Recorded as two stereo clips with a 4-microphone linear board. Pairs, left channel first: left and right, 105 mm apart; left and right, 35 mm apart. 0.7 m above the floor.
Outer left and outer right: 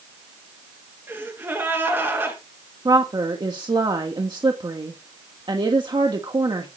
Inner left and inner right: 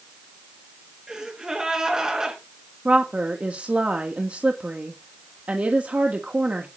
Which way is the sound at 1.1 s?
20° right (ahead or behind).